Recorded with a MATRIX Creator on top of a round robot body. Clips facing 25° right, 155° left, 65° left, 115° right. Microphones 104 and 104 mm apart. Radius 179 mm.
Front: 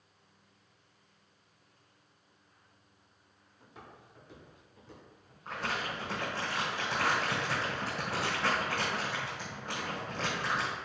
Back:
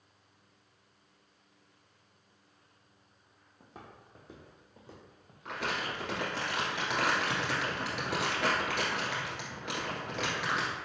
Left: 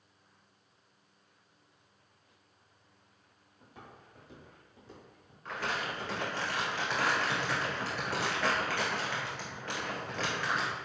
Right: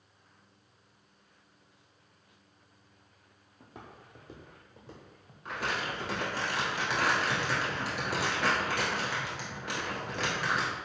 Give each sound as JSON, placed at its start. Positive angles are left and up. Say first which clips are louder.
{"t": 3.6, "sound": "footsteps", "louder": "back 1 dB, right 3 dB", "azimuth_deg": -150, "distance_m": 0.7}
{"t": 5.5, "sound": "crumpling", "louder": "even, right 1 dB", "azimuth_deg": 170, "distance_m": 1.6}